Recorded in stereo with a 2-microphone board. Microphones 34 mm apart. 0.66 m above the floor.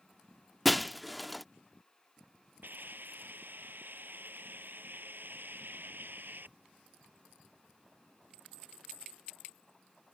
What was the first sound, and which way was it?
Breaking glass, centre (ahead or behind).